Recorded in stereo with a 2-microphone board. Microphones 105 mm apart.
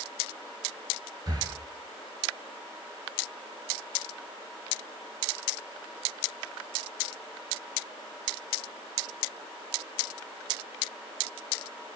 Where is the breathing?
45° right (ahead or behind), 1.6 m.